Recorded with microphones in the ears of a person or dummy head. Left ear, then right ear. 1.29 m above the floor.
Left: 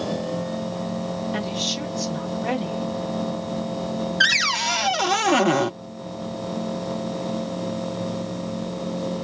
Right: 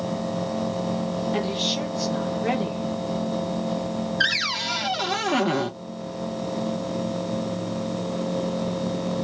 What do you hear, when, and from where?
1.3 s a woman speaking: 5° left (ahead or behind), 3.5 m
4.2 s a cupboard door: 25° left (ahead or behind), 0.5 m